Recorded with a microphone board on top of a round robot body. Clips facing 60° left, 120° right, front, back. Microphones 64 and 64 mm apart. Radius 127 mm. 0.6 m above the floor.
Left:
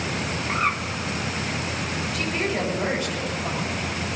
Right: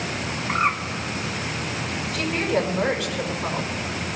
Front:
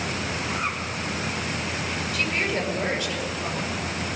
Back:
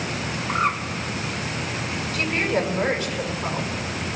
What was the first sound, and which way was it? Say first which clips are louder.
A bird: right 3 dB, back 9 dB; straight behind.